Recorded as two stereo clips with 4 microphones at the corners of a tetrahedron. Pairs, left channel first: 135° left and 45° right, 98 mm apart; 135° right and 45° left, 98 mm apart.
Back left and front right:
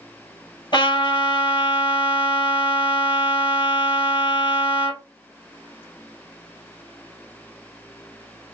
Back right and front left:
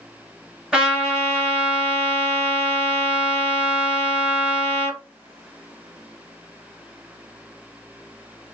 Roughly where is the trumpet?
Behind left.